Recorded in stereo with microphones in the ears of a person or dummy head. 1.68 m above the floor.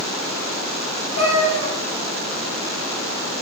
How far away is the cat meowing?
About 1.6 m.